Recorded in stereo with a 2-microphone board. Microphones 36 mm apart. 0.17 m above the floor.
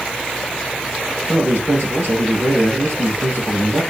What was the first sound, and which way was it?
A man speaking, 65° right (ahead or behind).